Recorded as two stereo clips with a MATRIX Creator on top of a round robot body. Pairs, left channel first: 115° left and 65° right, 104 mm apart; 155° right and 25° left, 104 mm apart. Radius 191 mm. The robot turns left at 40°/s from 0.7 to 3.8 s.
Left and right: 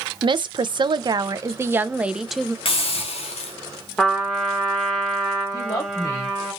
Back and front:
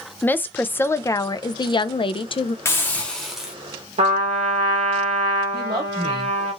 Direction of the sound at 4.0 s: 30° left.